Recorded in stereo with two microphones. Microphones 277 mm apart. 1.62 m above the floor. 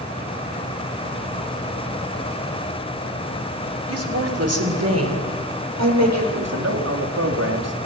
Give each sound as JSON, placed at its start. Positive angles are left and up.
{"t": 3.9, "sound": "a woman speaking", "side_deg": -55, "distance_m": 6.5}
{"t": 6.3, "sound": "a man speaking", "side_deg": -65, "distance_m": 4.0}